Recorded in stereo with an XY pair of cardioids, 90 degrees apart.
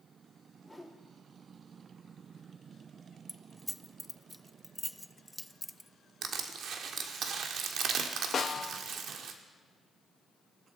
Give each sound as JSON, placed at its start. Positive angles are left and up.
{"t": 0.6, "sound": "a whoosh", "azimuth_deg": 0, "distance_m": 2.5}
{"t": 3.3, "sound": "keys jangling", "azimuth_deg": 5, "distance_m": 0.6}
{"t": 6.2, "sound": "crushing", "azimuth_deg": -70, "distance_m": 1.6}
{"t": 8.3, "sound": "a snare drum", "azimuth_deg": 50, "distance_m": 1.1}